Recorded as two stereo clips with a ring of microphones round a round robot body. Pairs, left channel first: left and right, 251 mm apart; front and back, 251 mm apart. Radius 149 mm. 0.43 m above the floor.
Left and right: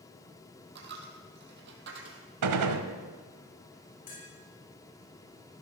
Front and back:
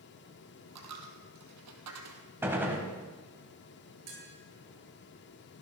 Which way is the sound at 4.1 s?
155° left.